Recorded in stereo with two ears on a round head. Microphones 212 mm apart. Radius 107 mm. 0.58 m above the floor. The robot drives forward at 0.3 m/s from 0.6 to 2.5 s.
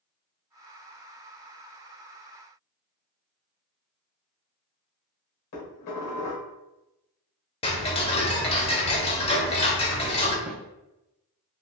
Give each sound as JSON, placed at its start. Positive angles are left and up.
{"t": 5.5, "sound": "dishes clattering", "side_deg": 65, "distance_m": 1.3}
{"t": 7.6, "sound": "ticking", "side_deg": 25, "distance_m": 0.6}
{"t": 10.5, "sound": "a snare drum", "side_deg": -5, "distance_m": 0.5}